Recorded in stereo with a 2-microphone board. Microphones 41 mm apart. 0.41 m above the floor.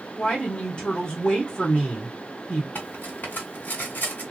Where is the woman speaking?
25° left (ahead or behind), 1.2 m.